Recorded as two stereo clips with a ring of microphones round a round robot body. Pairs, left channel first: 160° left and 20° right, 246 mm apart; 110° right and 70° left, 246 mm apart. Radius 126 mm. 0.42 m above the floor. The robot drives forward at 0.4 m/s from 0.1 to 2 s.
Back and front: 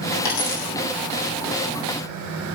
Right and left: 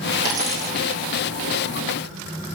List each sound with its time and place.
0.2 s a dropped coin: 145° left, 4 m